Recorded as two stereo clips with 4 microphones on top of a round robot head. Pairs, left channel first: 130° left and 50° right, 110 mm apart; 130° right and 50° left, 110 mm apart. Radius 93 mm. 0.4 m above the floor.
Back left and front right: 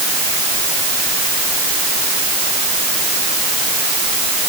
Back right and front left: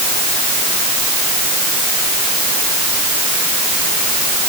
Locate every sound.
Only background noise.